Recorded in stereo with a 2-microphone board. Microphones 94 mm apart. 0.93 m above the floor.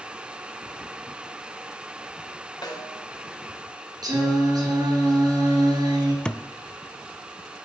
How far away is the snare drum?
About 2 m.